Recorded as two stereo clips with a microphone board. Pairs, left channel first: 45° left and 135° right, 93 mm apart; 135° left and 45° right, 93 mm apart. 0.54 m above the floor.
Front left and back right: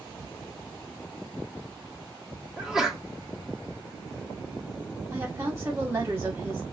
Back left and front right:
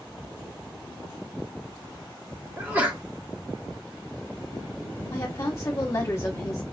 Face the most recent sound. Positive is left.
turn(degrees=175)